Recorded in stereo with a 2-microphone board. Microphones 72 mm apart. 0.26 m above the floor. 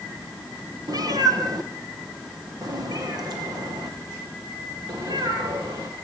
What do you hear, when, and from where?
0.9 s a cat meowing: 60° right (ahead or behind), 2.5 m; by 5.9 s 65° right (ahead or behind), 7 m